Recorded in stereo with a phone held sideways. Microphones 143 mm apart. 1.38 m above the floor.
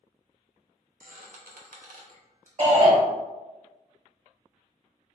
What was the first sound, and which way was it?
A squeak, 75° right (ahead or behind).